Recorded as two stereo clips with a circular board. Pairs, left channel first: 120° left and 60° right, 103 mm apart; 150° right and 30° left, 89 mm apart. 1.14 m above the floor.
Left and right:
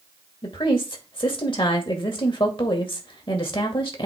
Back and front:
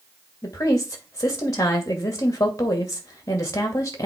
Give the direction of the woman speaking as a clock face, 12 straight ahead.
7 o'clock.